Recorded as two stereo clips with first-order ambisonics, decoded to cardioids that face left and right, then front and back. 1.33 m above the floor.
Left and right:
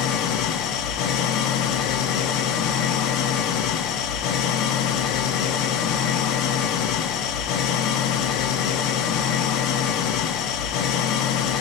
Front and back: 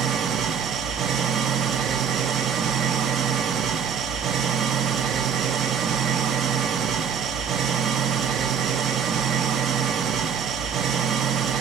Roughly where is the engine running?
Behind left.